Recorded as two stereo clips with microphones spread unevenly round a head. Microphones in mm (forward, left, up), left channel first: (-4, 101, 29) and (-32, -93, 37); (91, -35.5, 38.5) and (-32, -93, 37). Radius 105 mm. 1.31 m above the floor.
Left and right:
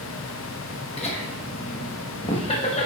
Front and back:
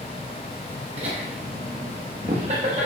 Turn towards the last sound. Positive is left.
turn(degrees=145)